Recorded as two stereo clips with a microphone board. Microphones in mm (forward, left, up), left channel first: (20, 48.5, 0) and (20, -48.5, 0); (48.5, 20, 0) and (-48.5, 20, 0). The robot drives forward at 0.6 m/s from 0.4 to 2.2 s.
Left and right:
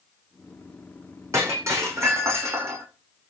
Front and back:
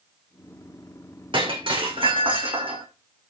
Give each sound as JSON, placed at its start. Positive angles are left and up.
{"t": 1.3, "sound": "breaking glass", "azimuth_deg": -150, "distance_m": 7.5}